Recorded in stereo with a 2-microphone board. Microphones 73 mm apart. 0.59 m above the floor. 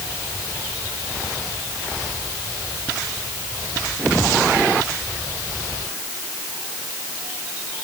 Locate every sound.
Only background noise.